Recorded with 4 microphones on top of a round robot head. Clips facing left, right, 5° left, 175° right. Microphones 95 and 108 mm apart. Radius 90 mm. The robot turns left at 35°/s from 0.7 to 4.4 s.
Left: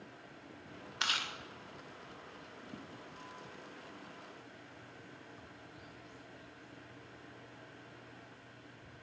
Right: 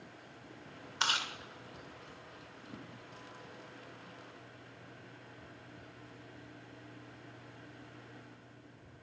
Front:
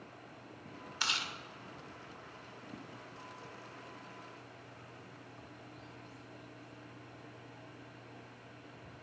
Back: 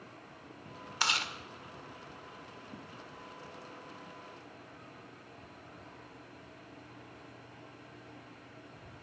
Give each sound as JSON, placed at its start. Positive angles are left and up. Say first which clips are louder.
{"t": 1.0, "sound": "chewing", "louder": "right 3 dB, back 5 dB", "azimuth_deg": -145, "distance_m": 1.5}